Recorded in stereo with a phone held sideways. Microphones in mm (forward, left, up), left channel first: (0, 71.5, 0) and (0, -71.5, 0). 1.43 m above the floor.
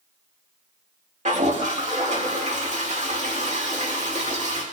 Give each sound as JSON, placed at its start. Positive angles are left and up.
{"t": 1.2, "sound": "a toilet flushing", "side_deg": -50, "distance_m": 2.0}